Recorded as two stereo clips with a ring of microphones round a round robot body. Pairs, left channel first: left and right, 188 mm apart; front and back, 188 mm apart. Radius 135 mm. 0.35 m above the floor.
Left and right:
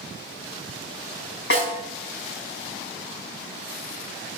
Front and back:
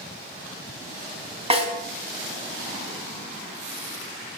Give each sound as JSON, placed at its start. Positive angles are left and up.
{"t": 1.5, "sound": "a snare drum", "azimuth_deg": 125, "distance_m": 3.5}